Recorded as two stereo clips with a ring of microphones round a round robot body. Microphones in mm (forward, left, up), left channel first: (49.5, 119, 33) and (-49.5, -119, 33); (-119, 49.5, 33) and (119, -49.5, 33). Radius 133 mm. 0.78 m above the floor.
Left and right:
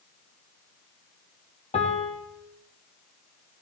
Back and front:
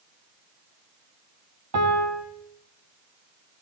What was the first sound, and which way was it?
A piano, straight ahead.